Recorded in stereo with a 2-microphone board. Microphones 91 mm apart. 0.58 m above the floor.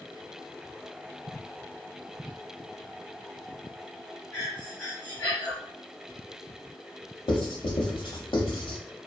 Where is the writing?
80° left, 0.8 m.